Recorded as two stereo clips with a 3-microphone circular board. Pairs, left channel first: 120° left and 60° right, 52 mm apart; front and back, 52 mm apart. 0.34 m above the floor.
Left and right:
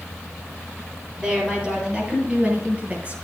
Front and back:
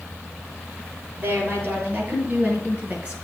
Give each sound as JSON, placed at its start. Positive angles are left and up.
{"t": 1.2, "sound": "a woman speaking", "azimuth_deg": -135, "distance_m": 7.5}